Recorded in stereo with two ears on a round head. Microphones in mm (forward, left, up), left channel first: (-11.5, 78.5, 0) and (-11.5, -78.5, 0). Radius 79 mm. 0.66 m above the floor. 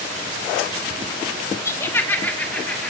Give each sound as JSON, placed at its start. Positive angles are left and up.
{"t": 1.6, "sound": "laughter", "side_deg": 15, "distance_m": 1.1}